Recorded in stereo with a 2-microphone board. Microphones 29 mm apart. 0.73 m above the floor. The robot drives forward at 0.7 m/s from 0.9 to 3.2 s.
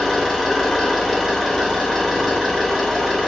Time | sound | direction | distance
0.0 | an engine running | centre (ahead or behind) | 1.7 m